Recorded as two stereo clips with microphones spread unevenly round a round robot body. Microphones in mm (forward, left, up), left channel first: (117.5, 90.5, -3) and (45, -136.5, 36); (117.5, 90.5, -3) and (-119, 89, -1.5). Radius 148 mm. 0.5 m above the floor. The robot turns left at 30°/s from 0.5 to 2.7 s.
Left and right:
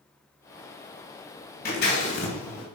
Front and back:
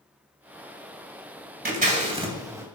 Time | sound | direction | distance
1.6 | scissors | 130° left | 2.5 m